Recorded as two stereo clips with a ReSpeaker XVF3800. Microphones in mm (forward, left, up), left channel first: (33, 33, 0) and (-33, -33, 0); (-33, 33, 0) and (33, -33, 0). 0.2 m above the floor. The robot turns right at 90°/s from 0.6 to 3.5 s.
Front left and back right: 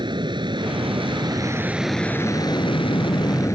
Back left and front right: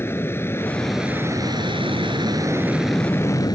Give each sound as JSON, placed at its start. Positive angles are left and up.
{"t": 0.0, "sound": "an aircraft", "azimuth_deg": -160}